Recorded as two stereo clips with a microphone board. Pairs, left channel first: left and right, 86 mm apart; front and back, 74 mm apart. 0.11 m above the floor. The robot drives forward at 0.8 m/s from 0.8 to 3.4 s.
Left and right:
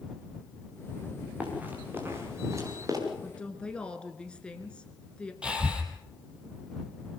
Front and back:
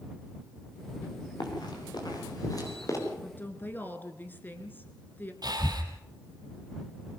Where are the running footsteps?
15° right, 6 m; by 3.0 s 45° right, 5 m.